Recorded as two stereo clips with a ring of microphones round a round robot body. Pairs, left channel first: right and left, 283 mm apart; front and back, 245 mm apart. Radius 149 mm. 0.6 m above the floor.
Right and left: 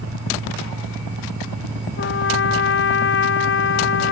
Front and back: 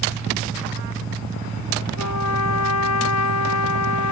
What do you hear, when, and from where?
2.0 s a trumpet: 40° right